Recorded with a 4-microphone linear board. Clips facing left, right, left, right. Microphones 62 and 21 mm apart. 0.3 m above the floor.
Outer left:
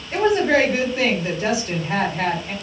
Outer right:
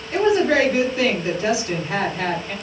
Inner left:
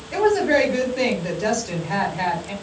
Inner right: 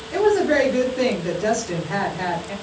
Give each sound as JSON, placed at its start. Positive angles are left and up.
{"t": 0.1, "sound": "a woman speaking", "side_deg": 20, "distance_m": 2.5}